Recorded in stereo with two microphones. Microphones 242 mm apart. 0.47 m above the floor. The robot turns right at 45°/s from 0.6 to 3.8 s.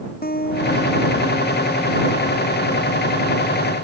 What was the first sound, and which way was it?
A guitar, 140° left.